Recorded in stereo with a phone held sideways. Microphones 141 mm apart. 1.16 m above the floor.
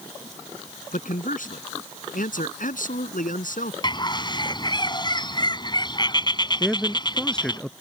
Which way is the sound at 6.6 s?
5° left (ahead or behind).